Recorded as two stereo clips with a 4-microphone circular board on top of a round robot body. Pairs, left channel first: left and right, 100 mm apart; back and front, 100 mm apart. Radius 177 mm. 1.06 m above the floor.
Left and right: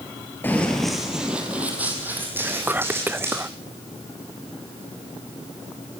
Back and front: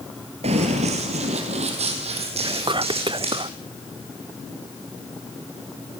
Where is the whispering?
20° right, 0.6 m.